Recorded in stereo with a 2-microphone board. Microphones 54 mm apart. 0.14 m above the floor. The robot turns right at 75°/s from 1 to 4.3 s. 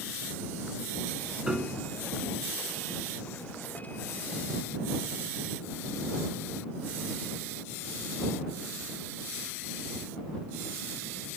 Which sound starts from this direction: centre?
A piano, at 1.5 s.